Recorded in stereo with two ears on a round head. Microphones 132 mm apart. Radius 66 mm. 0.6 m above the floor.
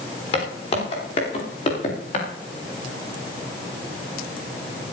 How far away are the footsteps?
About 8.5 m.